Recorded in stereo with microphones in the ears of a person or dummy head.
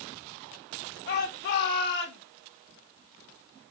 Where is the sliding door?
No sliding door in this recording.